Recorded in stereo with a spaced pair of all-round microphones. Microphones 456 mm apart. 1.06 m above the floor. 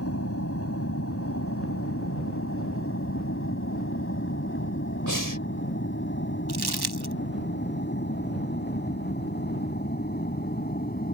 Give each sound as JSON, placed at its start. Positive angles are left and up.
{"t": 0.0, "sound": "an aircraft", "side_deg": 30}
{"t": 5.1, "sound": "breathing", "side_deg": -40}
{"t": 6.5, "sound": "crumpling", "side_deg": -55}